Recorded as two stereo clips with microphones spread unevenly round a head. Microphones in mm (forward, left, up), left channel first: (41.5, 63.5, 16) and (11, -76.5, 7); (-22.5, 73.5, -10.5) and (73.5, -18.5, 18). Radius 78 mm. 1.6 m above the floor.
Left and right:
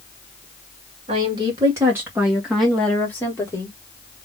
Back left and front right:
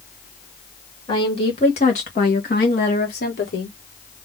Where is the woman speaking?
160° right, 2 m; by 3.7 s 145° left, 2 m.